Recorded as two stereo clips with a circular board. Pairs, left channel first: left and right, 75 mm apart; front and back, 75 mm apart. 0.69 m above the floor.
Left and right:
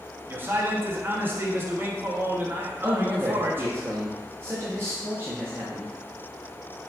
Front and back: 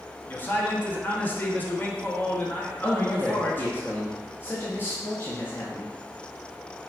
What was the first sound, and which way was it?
A man speaking, 50° right.